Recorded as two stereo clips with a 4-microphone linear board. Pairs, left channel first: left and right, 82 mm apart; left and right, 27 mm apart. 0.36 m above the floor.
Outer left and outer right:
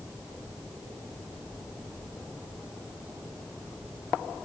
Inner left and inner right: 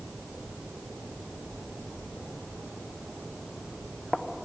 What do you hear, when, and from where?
Only background noise.